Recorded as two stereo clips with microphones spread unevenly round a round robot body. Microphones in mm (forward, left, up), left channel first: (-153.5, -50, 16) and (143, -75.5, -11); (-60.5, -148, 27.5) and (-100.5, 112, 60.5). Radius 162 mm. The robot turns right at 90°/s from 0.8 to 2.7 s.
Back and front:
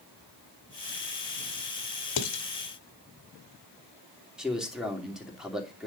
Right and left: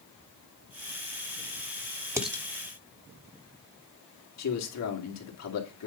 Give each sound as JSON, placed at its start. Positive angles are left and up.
{"t": 2.2, "sound": "dishes clattering", "azimuth_deg": 180, "distance_m": 1.4}
{"t": 4.4, "sound": "a man speaking", "azimuth_deg": -90, "distance_m": 3.0}